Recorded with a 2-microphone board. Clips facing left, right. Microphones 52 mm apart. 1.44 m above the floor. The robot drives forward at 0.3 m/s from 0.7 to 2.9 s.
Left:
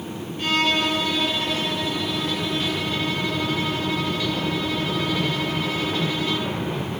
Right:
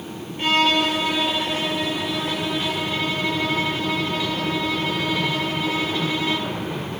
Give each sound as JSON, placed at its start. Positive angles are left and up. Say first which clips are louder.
{"t": 0.4, "sound": "a violin", "louder": "right 3 dB", "side_deg": -30, "distance_m": 1.2}